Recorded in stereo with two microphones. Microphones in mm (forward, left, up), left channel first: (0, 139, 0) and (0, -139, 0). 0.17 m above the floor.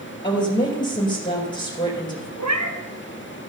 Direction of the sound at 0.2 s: 15° left (ahead or behind).